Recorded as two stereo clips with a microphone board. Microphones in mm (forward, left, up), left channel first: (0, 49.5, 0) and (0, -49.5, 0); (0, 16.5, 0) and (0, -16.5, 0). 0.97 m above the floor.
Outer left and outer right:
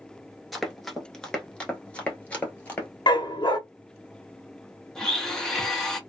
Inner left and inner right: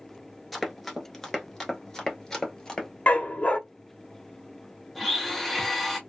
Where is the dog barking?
45° left (ahead or behind), 0.6 m.